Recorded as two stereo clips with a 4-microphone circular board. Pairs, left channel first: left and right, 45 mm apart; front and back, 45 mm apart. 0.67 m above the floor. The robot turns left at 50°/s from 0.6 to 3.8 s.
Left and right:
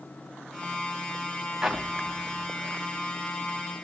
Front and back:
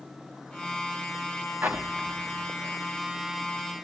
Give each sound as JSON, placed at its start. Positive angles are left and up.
{"t": 1.6, "sound": "an explosion", "azimuth_deg": -165, "distance_m": 0.8}